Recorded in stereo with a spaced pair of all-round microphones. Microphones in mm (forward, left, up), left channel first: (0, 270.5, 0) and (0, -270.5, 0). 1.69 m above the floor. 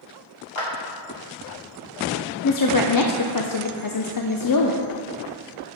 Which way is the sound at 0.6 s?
65° left (ahead or behind).